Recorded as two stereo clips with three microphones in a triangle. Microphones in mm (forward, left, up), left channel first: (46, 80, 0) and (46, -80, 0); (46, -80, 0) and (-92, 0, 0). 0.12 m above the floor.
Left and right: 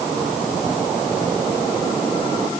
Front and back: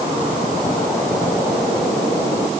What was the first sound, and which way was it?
Only background noise.